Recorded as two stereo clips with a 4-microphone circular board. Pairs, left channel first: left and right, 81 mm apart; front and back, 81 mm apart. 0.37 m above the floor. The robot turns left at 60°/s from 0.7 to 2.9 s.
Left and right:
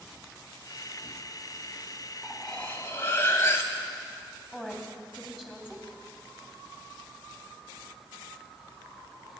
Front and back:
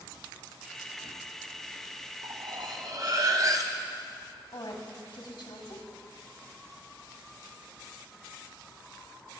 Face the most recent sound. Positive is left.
turn(degrees=-5)